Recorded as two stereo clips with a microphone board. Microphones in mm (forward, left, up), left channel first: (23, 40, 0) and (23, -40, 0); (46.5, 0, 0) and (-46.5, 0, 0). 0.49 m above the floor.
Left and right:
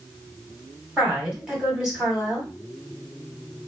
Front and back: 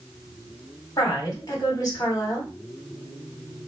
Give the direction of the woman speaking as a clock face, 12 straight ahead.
1 o'clock.